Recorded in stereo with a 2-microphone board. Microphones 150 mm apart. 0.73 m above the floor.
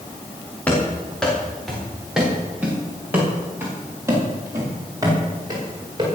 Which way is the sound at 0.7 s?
10° left (ahead or behind).